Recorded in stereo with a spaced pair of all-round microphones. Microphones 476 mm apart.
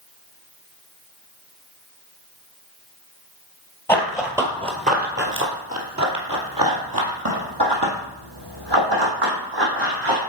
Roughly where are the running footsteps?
Centre.